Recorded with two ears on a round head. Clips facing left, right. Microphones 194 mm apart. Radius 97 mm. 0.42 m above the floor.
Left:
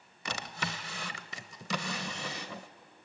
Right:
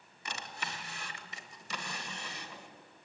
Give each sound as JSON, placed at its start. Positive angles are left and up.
{"t": 0.2, "sound": "a drawer", "side_deg": 65, "distance_m": 1.2}